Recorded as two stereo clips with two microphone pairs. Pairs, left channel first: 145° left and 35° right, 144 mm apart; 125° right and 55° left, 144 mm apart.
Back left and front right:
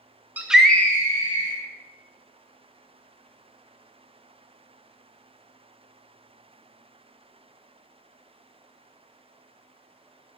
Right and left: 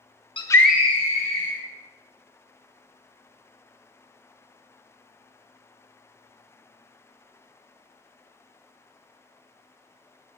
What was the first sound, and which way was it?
A scream, 105° right.